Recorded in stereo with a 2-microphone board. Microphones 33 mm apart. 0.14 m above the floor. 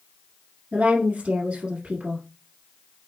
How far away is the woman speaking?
About 1.6 m.